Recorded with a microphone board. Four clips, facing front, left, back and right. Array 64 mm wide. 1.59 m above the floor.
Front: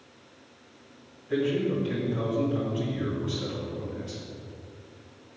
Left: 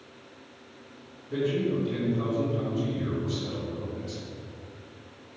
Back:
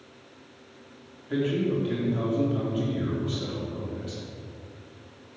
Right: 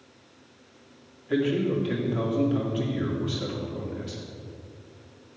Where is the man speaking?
95° right, 3 m.